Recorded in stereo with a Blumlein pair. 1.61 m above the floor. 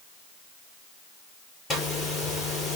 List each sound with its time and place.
1.7 s a zipper: 20° left, 6.5 m